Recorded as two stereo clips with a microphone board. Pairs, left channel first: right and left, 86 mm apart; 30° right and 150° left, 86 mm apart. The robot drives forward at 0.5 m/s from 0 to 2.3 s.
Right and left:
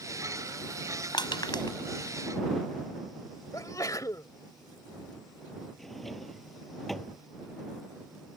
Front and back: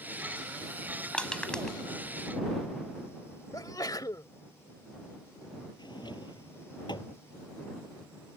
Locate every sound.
1.1 s crushing: 105° right; by 1.8 s 115° right
3.5 s a sneeze: 55° right
5.8 s a drawer: straight ahead